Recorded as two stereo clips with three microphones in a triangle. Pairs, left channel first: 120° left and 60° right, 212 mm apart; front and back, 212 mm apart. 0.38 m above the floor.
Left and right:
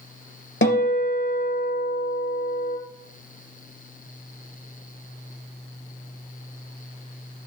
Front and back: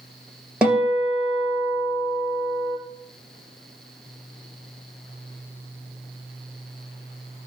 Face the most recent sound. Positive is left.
turn(degrees=95)